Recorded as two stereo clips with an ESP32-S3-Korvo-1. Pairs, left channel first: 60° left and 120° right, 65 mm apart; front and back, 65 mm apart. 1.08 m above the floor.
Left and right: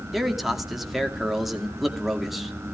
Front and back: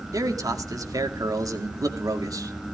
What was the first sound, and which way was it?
A man speaking, 150° left.